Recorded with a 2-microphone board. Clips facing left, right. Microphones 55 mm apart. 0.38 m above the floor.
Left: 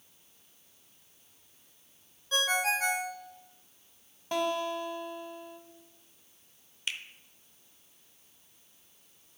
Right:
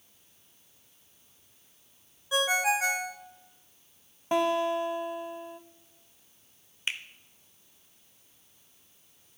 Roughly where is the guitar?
Right.